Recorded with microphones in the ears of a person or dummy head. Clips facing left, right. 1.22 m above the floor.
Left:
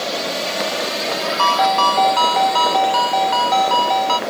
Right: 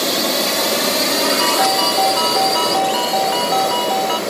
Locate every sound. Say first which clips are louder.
0.0 s a drone: right 4 dB; 65° right (ahead or behind); by 4.3 s 45° right (ahead or behind)
1.4 s a ringtone: even; 10° right (ahead or behind)